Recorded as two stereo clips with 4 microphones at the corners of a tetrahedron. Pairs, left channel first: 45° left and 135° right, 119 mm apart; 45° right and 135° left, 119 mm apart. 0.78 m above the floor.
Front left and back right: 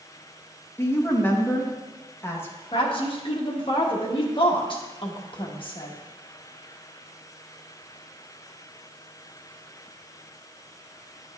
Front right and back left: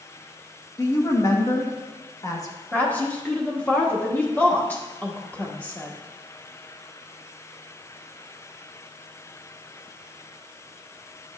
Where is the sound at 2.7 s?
25° left, 1.2 m.